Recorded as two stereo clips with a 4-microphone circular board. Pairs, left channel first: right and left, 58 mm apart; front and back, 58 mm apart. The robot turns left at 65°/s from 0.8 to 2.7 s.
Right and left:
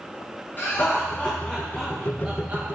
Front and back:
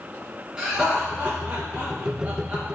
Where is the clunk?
No clunk in this recording.